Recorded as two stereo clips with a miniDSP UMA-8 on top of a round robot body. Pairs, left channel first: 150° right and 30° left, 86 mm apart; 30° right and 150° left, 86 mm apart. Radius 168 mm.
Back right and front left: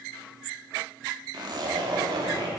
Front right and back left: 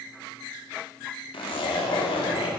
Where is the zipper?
10° right, 0.9 m.